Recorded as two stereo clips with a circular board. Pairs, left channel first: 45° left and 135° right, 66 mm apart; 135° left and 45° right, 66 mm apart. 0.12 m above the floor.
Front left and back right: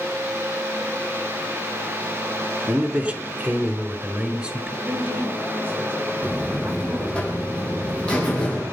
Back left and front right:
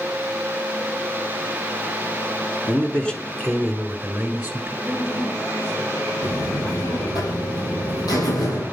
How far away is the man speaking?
About 1.5 m.